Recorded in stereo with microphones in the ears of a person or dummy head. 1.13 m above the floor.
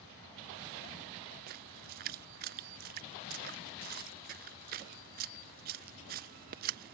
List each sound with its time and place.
1.5 s a splash: 45° right (ahead or behind)